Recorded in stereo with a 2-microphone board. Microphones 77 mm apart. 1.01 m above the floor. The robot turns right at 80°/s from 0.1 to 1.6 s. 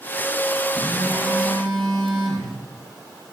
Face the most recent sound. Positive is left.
turn(degrees=-80)